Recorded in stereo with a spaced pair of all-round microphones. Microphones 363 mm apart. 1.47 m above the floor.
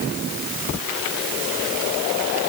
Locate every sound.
Only background noise.